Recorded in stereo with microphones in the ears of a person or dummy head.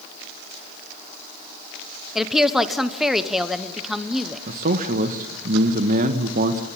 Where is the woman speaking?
5° left (ahead or behind), 0.8 m.